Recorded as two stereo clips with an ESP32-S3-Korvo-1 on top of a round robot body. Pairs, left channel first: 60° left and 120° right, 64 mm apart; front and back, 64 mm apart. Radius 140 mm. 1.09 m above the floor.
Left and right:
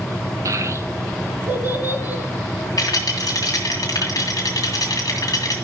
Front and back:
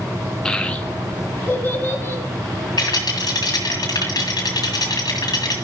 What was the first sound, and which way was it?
A child speaking, 80° right.